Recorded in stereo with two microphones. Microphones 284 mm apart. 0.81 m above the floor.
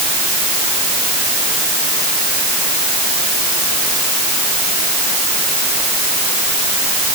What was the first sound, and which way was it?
Only background noise.